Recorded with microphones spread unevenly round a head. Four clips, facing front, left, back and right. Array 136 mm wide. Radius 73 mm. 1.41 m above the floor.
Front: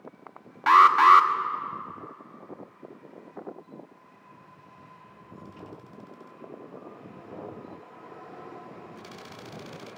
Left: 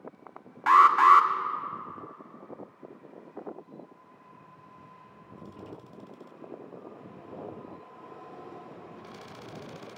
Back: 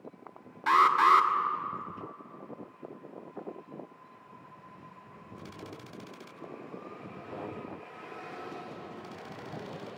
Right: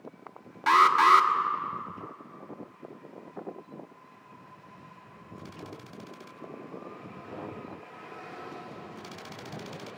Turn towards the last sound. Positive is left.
turn(degrees=5)